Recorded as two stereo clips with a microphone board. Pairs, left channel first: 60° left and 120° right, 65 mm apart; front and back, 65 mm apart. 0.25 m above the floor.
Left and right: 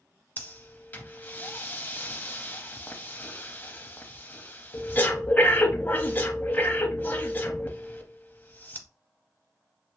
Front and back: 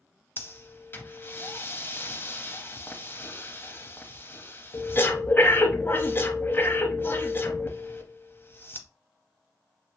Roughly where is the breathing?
Ahead.